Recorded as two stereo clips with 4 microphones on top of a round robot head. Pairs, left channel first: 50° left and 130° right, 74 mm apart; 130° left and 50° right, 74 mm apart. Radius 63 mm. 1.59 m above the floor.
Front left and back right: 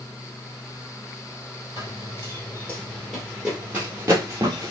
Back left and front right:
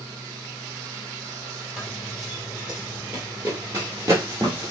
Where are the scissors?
I don't hear scissors.